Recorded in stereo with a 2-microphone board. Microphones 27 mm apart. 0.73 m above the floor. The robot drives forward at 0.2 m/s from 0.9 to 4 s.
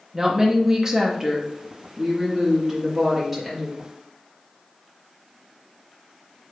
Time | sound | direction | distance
0.1 | a woman speaking | 20° right (ahead or behind) | 0.6 m